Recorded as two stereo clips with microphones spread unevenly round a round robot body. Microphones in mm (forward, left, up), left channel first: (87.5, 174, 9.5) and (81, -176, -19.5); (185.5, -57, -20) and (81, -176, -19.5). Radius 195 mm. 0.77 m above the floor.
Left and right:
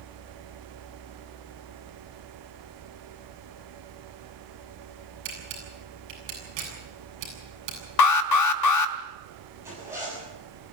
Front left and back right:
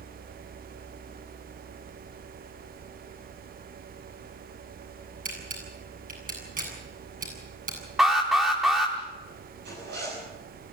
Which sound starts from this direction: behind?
A zipper, at 9.6 s.